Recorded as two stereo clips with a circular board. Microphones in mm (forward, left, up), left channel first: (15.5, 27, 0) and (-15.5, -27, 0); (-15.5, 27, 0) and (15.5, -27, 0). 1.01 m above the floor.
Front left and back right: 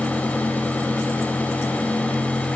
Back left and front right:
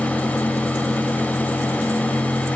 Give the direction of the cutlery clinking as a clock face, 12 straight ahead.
No cutlery clinking in this recording.